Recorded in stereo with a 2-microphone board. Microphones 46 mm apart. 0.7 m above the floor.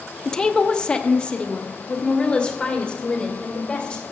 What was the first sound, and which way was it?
A woman speaking, 10° left (ahead or behind).